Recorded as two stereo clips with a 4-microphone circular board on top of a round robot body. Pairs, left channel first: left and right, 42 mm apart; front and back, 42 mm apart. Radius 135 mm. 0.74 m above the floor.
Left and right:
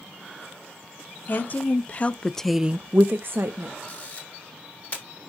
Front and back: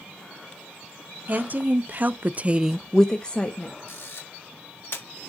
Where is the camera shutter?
30° left, 3.5 m.